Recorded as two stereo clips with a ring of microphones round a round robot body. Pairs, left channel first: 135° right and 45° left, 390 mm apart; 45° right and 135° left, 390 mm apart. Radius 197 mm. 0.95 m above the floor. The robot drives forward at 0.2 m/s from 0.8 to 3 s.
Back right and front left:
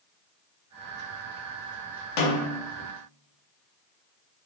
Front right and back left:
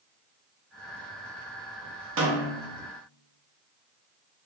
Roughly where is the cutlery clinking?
No cutlery clinking in this recording.